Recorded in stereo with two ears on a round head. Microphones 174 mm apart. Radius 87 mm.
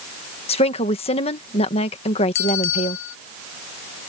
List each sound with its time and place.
0.5 s a woman speaking: 30° left (ahead or behind)
2.4 s a bell: 75° left (ahead or behind)